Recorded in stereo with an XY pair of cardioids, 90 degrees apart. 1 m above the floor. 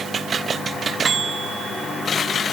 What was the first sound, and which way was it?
Only background noise.